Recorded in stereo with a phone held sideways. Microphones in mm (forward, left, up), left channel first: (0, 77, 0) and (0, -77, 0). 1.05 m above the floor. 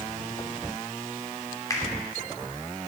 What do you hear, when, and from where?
1.7 s a finger snap: 25° left (ahead or behind), 3 m